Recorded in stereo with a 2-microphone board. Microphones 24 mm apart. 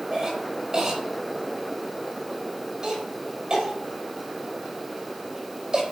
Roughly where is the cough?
Right.